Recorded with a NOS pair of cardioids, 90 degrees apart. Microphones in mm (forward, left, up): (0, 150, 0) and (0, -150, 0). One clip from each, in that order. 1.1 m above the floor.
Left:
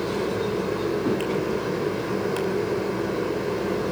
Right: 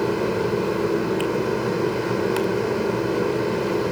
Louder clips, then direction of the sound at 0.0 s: Right 3 dB; 30° right.